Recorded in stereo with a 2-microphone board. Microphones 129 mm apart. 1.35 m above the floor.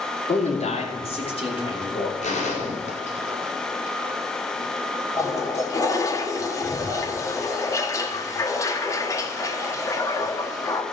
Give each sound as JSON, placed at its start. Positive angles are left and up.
{"t": 0.3, "sound": "a man speaking", "side_deg": 60, "distance_m": 3.0}
{"t": 2.2, "sound": "a gunshot", "side_deg": 60, "distance_m": 4.0}
{"t": 5.2, "sound": "a toilet flushing", "side_deg": 25, "distance_m": 1.2}